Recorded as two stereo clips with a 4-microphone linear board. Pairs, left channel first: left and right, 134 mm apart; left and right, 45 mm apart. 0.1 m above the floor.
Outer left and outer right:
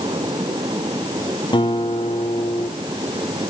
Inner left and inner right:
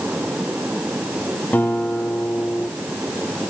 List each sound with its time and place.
1.5 s a guitar: 35° left (ahead or behind), 2.5 m